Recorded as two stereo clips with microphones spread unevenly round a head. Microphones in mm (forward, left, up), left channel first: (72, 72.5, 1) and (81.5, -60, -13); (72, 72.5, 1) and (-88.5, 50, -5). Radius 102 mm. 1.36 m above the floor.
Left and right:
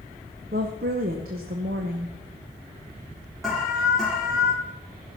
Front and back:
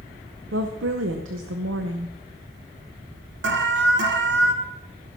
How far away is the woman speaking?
About 0.8 m.